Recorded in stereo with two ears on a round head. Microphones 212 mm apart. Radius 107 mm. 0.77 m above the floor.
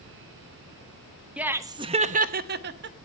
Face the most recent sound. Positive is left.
turn(degrees=-50)  # may be behind; listen again after turning